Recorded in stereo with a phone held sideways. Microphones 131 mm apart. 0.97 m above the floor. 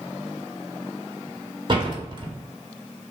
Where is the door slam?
40° right (ahead or behind), 1.8 m.